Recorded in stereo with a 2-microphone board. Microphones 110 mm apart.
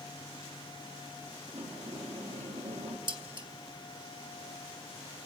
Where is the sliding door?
70° right (ahead or behind), 2.5 m.